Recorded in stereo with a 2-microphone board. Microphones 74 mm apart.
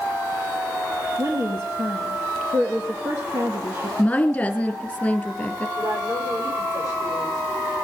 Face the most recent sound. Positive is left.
turn(degrees=-65)  # may be behind; listen again after turning